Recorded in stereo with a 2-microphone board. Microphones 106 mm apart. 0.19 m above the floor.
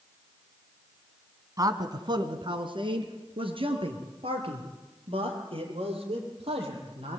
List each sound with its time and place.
1.6 s a man speaking: 35° right (ahead or behind), 1.9 m; by 7.2 s 60° right (ahead or behind), 8.5 m